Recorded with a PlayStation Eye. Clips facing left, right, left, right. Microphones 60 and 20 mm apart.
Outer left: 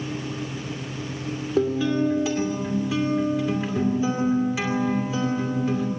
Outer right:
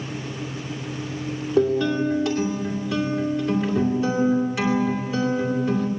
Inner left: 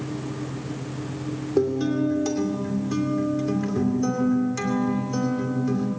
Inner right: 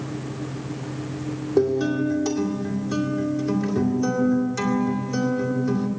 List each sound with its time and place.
1.6 s a guitar: centre (ahead or behind), 2.5 m